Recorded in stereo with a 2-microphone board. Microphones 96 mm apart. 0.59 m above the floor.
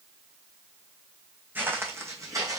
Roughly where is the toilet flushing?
I don't hear a toilet flushing.